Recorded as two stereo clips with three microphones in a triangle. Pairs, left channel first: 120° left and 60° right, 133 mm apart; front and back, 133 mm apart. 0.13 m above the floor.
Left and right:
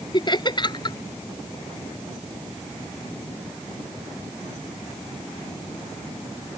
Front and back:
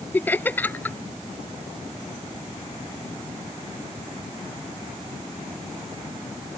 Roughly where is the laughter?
Left.